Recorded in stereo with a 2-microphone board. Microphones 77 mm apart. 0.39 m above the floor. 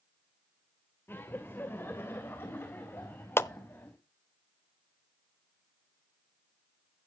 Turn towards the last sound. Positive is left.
turn(degrees=35)  # may be behind; listen again after turning